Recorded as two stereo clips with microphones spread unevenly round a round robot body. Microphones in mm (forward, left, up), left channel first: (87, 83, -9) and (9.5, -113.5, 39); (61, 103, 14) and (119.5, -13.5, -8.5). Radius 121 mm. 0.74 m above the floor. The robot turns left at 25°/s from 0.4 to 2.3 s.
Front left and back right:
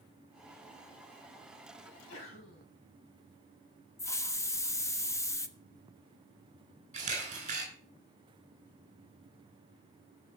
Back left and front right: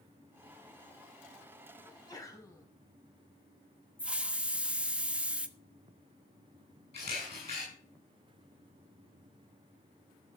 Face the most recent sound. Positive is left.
turn(degrees=-175)